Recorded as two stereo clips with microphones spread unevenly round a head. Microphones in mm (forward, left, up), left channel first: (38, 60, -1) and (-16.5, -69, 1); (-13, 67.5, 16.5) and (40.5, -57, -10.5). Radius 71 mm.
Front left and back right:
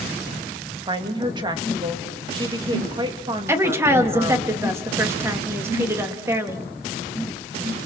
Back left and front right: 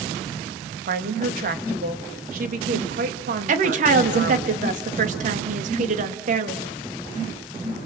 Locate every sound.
0.9 s a woman speaking: 55° right, 2 m
3.5 s a woman speaking: 40° right, 2.5 m